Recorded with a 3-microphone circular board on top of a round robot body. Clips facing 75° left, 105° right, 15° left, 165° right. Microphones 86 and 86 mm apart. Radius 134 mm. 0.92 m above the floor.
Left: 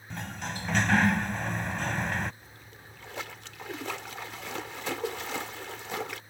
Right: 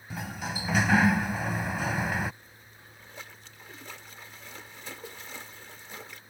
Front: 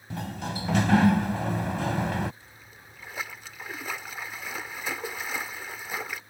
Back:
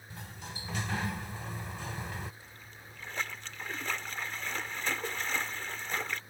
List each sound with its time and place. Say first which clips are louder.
0.1 s a sliding door: right 1 dB, front 13 dB; 20° right
2.4 s a splash: left 3 dB, even; 95° left